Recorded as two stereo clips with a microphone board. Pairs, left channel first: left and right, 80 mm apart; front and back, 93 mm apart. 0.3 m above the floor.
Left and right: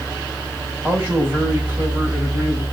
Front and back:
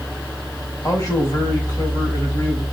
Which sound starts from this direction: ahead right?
A man speaking, at 0.8 s.